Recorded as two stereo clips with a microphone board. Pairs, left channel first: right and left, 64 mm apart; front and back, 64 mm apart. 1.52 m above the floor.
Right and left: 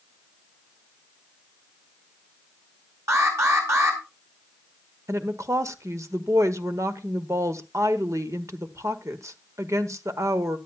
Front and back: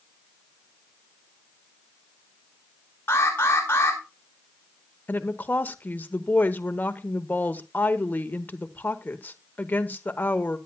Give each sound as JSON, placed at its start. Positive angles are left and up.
{"t": 3.1, "sound": "an alarm", "azimuth_deg": 50, "distance_m": 5.0}
{"t": 5.1, "sound": "a woman speaking", "azimuth_deg": 60, "distance_m": 1.0}